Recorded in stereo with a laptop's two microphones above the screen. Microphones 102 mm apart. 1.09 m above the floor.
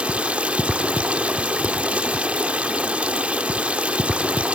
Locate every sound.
0.0 s running water: 15° right (ahead or behind), 0.8 m